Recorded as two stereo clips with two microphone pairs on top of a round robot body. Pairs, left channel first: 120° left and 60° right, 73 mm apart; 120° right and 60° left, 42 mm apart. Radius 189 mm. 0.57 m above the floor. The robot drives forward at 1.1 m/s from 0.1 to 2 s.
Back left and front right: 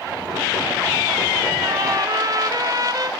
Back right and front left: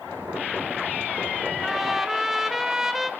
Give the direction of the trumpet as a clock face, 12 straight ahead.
1 o'clock.